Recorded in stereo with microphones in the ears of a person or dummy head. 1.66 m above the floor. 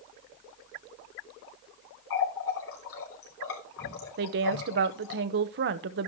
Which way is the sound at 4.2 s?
55° right (ahead or behind).